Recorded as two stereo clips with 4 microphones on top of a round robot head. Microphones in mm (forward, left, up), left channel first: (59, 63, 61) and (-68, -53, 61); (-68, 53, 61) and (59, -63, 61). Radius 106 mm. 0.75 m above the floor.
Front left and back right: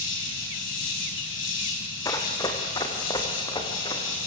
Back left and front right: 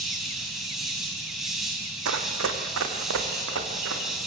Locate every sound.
0.0 s an insect: 45° left, 5 m
2.0 s running footsteps: 30° right, 2 m